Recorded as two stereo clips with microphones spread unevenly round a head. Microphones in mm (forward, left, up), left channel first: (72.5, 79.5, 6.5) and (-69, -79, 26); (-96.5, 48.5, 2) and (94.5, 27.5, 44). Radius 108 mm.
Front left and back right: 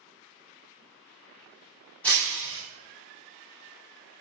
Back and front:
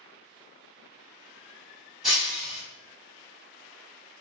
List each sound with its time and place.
2.0 s breaking glass: 40° right, 1.2 m